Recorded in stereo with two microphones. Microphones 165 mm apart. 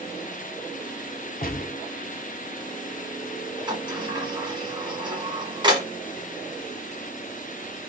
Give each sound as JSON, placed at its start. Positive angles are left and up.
{"t": 1.4, "sound": "a gunshot", "side_deg": 60, "distance_m": 1.1}
{"t": 3.7, "sound": "a sliding door", "side_deg": -30, "distance_m": 1.5}